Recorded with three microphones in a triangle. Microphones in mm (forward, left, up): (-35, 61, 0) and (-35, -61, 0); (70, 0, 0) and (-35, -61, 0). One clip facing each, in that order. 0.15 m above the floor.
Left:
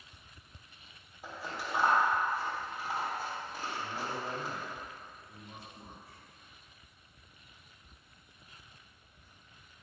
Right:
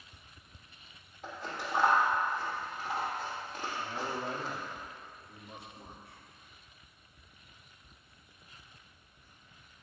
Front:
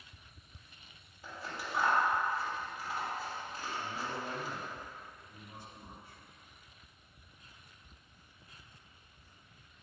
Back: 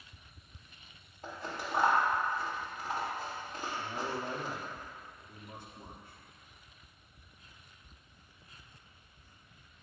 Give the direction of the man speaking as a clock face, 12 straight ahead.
6 o'clock.